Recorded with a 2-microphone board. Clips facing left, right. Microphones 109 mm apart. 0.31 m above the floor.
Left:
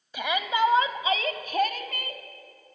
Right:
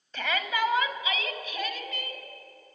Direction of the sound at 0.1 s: 10° left (ahead or behind).